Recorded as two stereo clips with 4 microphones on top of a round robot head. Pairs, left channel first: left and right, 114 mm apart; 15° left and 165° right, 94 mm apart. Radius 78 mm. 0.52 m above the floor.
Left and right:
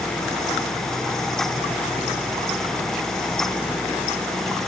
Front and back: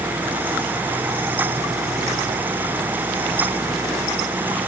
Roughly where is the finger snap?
I don't hear a finger snap.